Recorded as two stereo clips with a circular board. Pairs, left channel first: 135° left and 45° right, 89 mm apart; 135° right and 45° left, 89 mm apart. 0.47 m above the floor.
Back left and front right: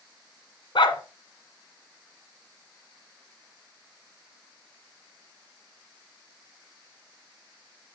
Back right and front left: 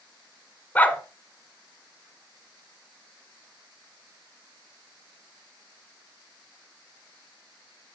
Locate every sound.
0.8 s a dog barking: 155° left, 1.1 m